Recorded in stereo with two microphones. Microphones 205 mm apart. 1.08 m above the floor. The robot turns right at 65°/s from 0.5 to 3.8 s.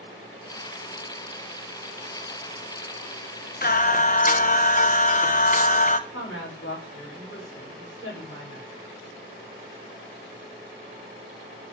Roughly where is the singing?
Left.